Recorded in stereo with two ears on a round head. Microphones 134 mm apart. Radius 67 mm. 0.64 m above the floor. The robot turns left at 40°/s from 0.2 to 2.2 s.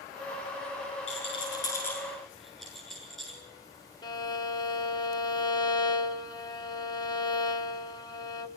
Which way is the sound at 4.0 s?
30° left (ahead or behind).